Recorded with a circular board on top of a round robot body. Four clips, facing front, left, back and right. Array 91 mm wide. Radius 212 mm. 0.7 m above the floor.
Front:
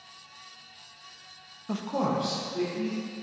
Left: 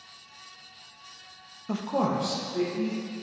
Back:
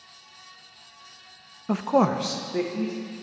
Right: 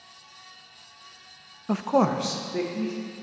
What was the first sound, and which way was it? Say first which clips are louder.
A man speaking: right 5 dB, back 7 dB; 140° right.